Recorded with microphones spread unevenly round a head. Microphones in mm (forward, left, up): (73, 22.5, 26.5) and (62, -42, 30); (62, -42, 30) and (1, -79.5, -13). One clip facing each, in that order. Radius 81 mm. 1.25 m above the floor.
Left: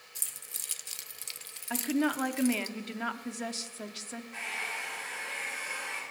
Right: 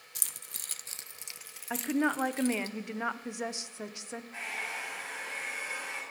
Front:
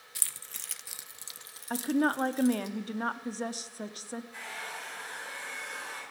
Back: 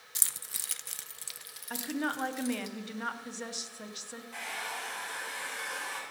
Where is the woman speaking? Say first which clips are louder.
Even, front 6 dB; 30° right, 0.8 m.